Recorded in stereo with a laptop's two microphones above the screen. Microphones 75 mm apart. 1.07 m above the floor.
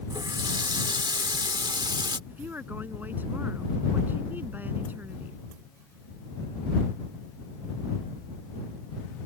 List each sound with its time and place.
0.1 s a running tap: 80° right
2.3 s a woman speaking: 25° right (ahead or behind)